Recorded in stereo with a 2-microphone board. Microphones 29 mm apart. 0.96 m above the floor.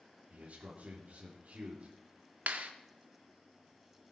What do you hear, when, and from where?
0.3 s a man speaking: 60° right (ahead or behind), 2.5 m
2.5 s a clap: 70° right (ahead or behind), 1.3 m